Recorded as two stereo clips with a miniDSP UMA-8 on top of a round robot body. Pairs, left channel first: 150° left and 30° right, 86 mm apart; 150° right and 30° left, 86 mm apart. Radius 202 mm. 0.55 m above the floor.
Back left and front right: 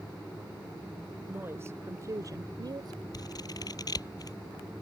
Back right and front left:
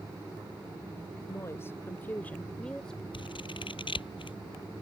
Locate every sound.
1.3 s a woman speaking: 95° right; by 3.0 s 65° right
3.1 s scissors: 170° right